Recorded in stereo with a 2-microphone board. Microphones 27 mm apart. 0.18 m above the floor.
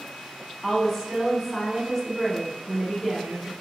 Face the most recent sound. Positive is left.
turn(degrees=0)  # may be behind; listen again after turning